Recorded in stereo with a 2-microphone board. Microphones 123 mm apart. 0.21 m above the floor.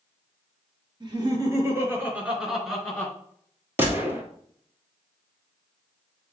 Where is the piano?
I don't hear a piano.